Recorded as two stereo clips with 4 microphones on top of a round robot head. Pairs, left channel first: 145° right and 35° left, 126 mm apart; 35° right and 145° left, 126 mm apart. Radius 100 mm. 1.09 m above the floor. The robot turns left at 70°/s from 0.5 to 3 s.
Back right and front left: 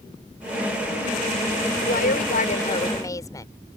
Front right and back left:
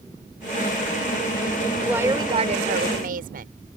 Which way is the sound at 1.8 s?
130° right.